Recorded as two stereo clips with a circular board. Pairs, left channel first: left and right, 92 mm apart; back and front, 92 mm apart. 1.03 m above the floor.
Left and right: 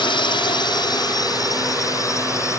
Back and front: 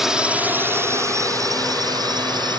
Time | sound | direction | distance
0.0 | a drone | 85° left | ?